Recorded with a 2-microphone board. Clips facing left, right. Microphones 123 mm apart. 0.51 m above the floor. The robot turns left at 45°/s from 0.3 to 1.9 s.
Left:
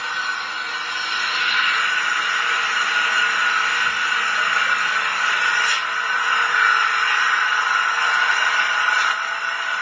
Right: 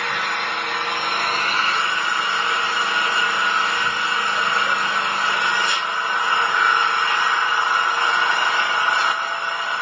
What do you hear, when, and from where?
0.0 s an engine running: 85° right, 0.8 m; by 9.8 s 155° right, 0.8 m